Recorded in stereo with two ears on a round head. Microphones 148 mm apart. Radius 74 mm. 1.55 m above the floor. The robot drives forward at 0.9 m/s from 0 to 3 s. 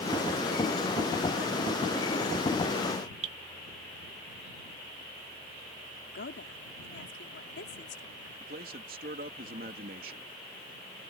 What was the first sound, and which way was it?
Dripping, 40° right (ahead or behind).